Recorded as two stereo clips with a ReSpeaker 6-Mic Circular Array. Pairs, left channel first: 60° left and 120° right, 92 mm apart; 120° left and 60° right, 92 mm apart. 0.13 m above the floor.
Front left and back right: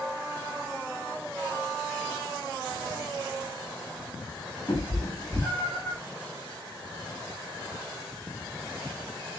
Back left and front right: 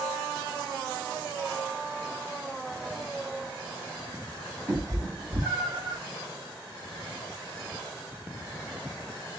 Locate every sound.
4.7 s a cat meowing: 5° right, 1.7 m; by 6.0 s 25° right, 2 m